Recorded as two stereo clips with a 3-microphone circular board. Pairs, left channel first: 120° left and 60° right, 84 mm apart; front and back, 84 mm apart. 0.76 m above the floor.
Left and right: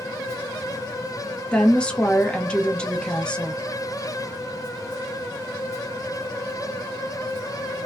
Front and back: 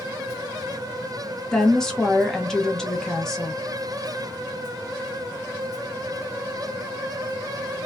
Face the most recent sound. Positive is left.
turn(degrees=70)